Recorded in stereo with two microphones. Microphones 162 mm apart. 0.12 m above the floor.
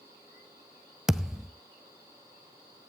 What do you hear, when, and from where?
1.1 s a thud: 5° right (ahead or behind), 0.6 m